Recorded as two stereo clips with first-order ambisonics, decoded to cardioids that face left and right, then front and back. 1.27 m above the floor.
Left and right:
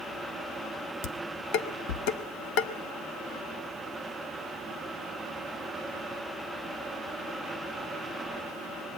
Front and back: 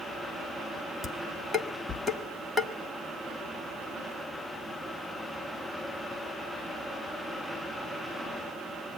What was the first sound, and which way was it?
Dishes clattering, 85° left.